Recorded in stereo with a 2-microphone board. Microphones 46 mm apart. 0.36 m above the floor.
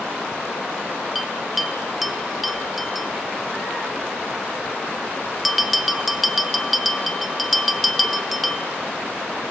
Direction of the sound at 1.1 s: 5° right (ahead or behind).